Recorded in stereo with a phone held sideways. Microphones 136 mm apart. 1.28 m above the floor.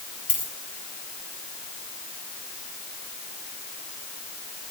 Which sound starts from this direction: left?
A dropped coin, at 0.3 s.